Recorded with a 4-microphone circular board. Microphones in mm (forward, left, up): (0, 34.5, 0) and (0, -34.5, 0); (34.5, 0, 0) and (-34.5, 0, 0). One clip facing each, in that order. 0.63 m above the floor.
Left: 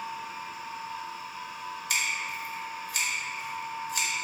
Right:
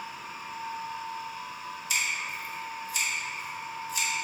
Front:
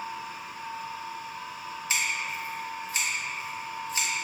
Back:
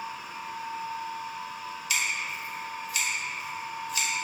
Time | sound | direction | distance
1.9 | scissors | 60° left | 0.6 m